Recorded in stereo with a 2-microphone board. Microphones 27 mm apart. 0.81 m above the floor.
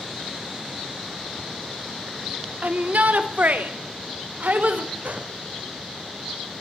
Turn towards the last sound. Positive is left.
turn(degrees=-65)  # may be behind; listen again after turning